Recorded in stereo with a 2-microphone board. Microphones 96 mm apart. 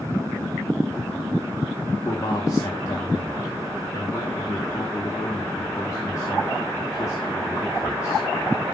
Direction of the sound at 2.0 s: 30° left (ahead or behind).